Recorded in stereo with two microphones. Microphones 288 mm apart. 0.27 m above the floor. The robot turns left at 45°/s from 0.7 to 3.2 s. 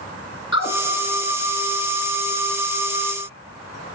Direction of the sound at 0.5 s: 50° left (ahead or behind).